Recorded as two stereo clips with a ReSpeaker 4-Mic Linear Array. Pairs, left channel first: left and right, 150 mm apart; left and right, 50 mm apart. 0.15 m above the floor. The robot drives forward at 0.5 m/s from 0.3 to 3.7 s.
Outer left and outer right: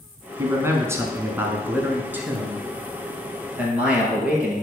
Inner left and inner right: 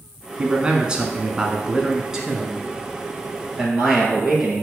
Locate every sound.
0.4 s a man speaking: 20° right (ahead or behind), 1.1 m; by 4.6 s 10° right (ahead or behind), 2 m